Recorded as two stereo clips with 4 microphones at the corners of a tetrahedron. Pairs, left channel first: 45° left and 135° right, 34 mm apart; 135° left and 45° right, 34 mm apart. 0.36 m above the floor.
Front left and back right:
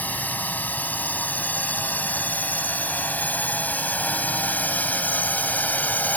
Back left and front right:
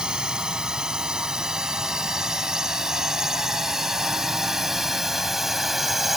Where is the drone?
20° left; by 6.2 s 35° left.